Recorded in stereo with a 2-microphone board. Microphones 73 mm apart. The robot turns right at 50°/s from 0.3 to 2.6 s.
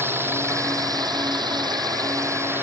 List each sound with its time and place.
0.0 s a drone: 145° right; by 2.6 s 30° right